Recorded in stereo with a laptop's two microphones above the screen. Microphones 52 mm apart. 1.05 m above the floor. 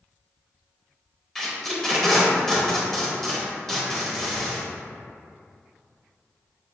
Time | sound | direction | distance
1.4 | tape being pulled | 10° left (ahead or behind) | 0.8 m